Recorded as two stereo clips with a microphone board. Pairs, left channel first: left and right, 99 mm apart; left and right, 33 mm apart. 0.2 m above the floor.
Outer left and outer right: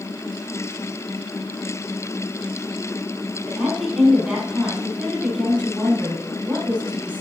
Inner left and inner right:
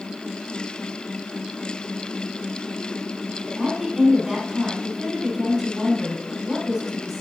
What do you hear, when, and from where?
3.5 s a woman speaking: 10° right (ahead or behind), 5 m